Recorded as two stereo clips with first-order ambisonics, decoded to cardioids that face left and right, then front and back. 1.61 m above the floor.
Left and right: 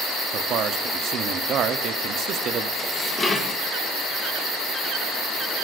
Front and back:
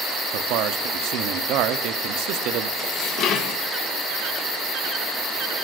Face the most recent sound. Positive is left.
turn(degrees=20)